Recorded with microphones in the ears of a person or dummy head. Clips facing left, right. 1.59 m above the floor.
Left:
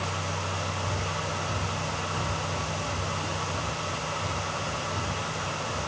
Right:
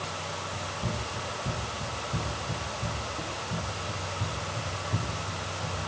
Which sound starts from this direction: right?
Running footsteps, at 0.5 s.